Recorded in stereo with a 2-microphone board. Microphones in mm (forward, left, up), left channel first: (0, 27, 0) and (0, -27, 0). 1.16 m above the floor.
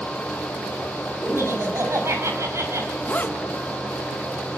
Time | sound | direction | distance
1.2 | laughter | 55° right (ahead or behind) | 6.5 m
3.0 | a zipper | 30° left (ahead or behind) | 1.5 m